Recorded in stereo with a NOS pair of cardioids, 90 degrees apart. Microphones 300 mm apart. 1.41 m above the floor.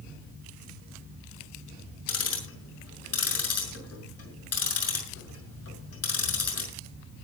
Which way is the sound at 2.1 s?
50° left.